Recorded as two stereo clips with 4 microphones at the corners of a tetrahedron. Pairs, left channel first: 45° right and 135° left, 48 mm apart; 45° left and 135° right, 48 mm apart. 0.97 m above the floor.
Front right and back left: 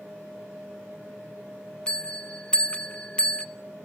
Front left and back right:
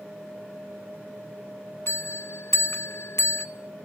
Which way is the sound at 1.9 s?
20° left.